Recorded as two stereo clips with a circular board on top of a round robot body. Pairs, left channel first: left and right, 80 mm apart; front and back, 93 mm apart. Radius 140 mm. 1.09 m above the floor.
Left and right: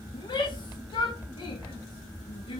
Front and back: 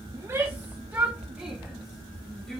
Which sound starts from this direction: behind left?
A shout, at 0.1 s.